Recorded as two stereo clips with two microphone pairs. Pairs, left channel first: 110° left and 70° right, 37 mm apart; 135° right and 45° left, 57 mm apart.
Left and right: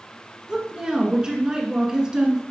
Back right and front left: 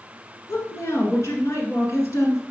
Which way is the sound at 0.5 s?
140° right.